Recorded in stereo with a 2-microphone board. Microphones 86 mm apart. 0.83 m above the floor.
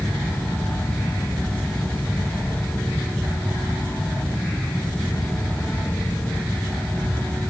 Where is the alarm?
No alarm in this recording.